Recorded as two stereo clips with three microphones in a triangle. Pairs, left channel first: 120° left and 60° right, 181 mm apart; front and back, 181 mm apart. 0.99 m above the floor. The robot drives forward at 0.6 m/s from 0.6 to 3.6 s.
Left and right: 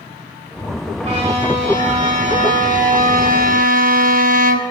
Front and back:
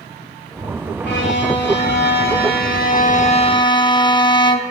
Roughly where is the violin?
Ahead.